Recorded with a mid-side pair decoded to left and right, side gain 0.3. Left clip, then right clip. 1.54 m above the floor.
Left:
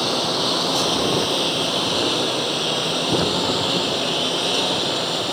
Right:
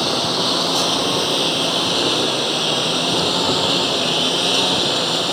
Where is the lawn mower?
20° right; by 5.3 s 45° right.